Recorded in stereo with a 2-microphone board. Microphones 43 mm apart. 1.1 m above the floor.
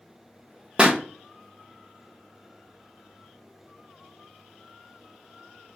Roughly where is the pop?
Right.